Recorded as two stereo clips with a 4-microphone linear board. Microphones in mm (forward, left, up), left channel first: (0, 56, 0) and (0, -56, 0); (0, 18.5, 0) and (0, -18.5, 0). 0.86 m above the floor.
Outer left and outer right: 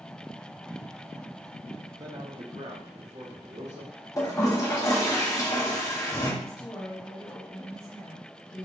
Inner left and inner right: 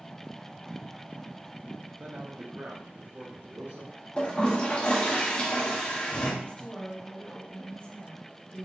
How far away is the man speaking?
About 0.6 m.